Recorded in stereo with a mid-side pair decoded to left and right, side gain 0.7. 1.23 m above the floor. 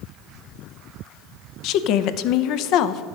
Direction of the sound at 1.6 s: 60° left.